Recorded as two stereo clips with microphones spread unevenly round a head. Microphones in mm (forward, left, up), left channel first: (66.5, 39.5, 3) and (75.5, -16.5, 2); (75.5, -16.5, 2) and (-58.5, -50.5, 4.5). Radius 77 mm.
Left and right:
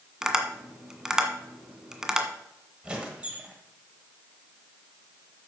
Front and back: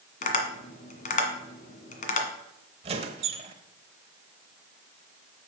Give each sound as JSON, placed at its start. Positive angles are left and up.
{"t": 0.2, "sound": "tapping", "azimuth_deg": 0, "distance_m": 1.7}
{"t": 2.8, "sound": "a squeak", "azimuth_deg": -150, "distance_m": 1.2}